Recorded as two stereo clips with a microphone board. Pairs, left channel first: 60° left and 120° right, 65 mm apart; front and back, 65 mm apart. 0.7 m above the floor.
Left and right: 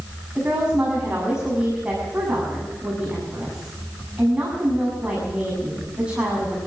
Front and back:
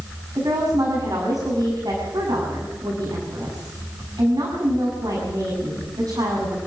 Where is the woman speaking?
165° left, 6.5 m.